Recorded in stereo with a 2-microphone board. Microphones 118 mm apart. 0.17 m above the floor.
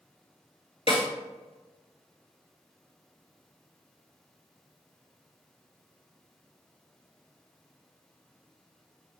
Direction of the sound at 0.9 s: 55° left (ahead or behind).